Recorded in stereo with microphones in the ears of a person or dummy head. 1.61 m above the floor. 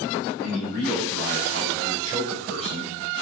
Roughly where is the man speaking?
Right.